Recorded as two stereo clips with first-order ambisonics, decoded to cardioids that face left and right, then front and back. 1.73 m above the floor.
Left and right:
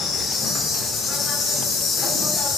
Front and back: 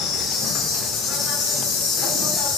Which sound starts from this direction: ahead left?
An insect, at 0.0 s.